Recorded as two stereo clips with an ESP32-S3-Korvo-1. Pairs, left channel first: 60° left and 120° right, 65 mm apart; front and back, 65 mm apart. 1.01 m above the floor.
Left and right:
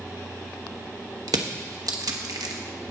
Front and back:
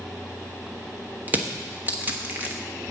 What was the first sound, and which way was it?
Crushing, 120° right.